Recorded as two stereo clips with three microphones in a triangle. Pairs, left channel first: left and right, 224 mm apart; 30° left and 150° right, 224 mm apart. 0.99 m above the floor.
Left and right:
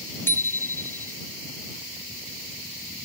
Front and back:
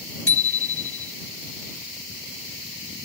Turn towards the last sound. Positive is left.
turn(degrees=10)